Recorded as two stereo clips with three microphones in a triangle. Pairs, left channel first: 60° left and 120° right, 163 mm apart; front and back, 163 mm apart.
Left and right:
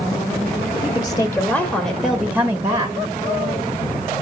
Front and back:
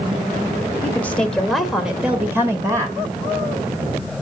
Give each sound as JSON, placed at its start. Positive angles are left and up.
{"t": 0.8, "sound": "a woman speaking", "azimuth_deg": 65, "distance_m": 1.4}